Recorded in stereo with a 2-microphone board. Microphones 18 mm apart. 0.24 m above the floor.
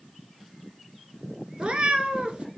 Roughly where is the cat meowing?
Right.